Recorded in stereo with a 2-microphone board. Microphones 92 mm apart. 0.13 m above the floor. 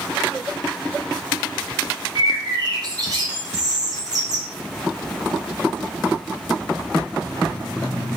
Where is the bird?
45° right (ahead or behind), 1.2 m.